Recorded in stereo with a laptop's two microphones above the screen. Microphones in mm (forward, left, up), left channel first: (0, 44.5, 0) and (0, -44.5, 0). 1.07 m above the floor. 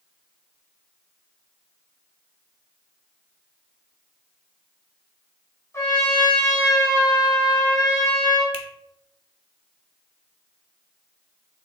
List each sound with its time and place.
5.7 s a trumpet: 30° left (ahead or behind), 3 m
8.5 s a finger snap: 80° left, 1.3 m